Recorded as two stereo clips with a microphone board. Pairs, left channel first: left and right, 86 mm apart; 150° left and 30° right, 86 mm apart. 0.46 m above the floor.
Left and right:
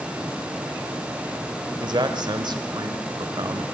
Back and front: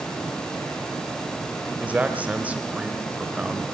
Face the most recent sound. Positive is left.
turn(degrees=-100)